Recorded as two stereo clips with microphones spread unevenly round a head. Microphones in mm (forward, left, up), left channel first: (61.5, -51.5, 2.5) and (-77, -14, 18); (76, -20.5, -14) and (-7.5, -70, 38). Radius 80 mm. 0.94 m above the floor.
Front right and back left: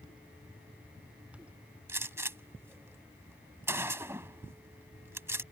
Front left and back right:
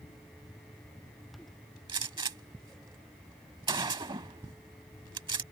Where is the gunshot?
125° right.